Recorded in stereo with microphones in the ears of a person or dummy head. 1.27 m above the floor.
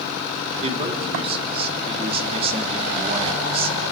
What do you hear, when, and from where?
0.6 s a man speaking: 35° right (ahead or behind), 3 m